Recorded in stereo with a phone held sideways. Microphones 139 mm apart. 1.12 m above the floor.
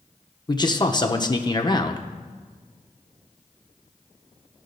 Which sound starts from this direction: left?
A man speaking, at 0.5 s.